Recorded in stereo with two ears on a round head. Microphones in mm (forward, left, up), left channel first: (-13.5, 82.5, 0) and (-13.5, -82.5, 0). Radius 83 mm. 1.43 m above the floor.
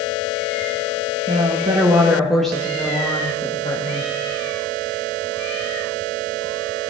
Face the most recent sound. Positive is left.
turn(degrees=30)  # may be behind; listen again after turning